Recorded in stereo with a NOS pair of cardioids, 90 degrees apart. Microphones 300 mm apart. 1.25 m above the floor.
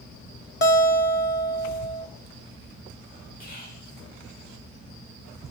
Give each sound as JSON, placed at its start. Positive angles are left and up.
{"t": 0.6, "sound": "a guitar", "azimuth_deg": 35, "distance_m": 1.0}
{"t": 3.4, "sound": "whispering", "azimuth_deg": 30, "distance_m": 2.0}